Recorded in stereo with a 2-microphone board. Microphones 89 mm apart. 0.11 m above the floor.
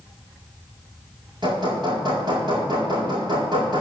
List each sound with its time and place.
1.4 s hammering: 60° right (ahead or behind), 4 m